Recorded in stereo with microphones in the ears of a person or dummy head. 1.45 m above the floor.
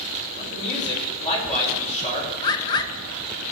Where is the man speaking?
40° left (ahead or behind), 4 m.